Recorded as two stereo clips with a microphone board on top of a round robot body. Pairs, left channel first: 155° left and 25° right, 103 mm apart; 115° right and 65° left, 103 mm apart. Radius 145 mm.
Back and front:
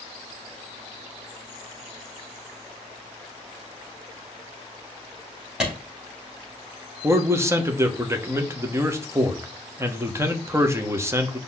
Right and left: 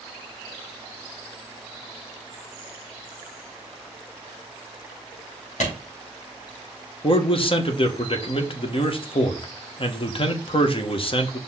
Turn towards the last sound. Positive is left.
turn(degrees=-85)